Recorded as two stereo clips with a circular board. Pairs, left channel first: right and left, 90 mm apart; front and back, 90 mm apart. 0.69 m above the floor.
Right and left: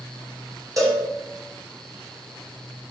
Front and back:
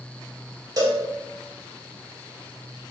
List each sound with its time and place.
0.8 s a cowbell: 140° left, 0.8 m